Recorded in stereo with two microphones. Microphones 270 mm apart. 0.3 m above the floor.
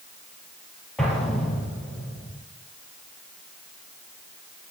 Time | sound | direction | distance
1.0 | an explosion | centre (ahead or behind) | 3 m